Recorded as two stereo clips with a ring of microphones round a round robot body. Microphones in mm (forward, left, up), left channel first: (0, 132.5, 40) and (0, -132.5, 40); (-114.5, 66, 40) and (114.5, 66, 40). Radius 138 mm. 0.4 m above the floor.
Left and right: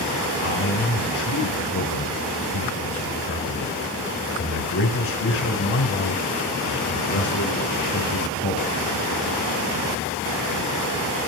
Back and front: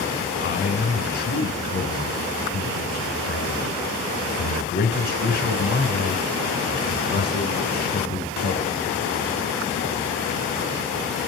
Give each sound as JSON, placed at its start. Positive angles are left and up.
{"t": 0.4, "sound": "a man speaking", "azimuth_deg": 130, "distance_m": 5.0}